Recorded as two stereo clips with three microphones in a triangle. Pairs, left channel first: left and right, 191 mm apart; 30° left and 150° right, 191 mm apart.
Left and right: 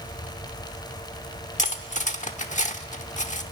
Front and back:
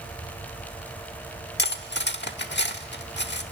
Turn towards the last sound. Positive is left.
turn(degrees=45)